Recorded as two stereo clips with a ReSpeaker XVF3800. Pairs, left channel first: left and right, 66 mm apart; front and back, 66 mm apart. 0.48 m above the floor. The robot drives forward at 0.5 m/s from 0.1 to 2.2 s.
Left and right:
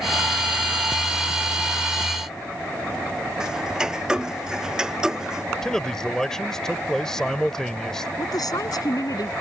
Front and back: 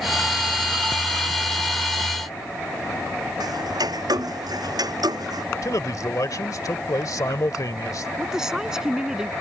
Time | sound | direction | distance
3.4 | ticking | 170° right | ?
5.6 | a man speaking | 10° left | ?
8.2 | a woman speaking | 100° left | ?